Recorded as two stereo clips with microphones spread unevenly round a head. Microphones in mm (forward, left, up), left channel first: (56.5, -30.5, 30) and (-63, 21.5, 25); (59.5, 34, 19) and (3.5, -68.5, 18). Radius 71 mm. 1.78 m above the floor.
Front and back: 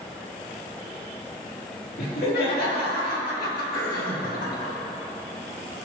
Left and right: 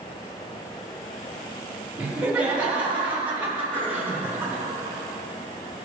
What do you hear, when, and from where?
2.0 s laughter: 40° right, 4.5 m; by 4.7 s 45° right, 3 m
3.7 s throat clearing: 10° right, 4 m